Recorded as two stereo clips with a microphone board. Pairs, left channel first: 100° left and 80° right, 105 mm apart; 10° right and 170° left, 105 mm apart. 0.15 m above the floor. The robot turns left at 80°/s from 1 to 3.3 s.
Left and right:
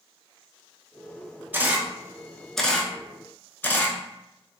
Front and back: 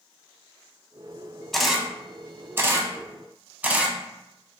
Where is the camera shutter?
95° right, 0.5 m; by 4.0 s 125° left, 0.5 m.